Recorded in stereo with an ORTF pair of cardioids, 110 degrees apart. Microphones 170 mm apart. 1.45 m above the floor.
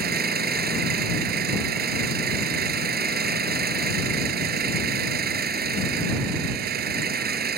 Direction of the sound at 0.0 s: 65° right.